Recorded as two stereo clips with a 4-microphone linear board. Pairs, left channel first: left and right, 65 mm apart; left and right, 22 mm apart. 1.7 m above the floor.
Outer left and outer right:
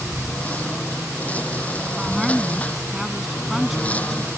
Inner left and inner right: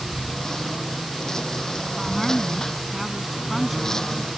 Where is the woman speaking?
5° right (ahead or behind).